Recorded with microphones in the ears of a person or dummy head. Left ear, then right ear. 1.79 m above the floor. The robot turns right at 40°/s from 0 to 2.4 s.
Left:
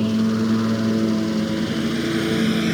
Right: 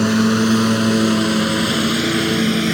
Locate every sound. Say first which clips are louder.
0.0 s a lawn mower: right 6 dB; 55° right (ahead or behind); by 2.8 s 10° right (ahead or behind)